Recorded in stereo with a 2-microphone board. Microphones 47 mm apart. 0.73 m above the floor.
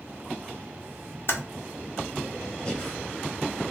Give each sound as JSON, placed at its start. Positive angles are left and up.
{"t": 1.3, "sound": "typing on a keyboard", "side_deg": 55, "distance_m": 1.0}
{"t": 2.6, "sound": "breathing", "side_deg": 10, "distance_m": 1.6}